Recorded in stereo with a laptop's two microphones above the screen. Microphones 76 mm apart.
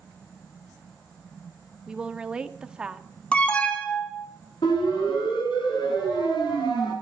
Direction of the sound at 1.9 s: 10° right (ahead or behind).